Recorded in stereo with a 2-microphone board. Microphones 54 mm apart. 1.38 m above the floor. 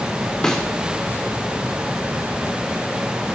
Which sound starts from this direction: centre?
A snare drum, at 0.4 s.